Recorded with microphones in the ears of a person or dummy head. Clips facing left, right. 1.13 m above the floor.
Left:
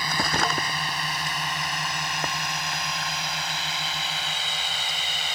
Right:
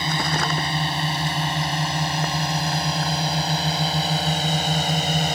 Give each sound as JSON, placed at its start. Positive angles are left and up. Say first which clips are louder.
{"t": 0.0, "sound": "a drone", "louder": "right 2 dB", "side_deg": -30}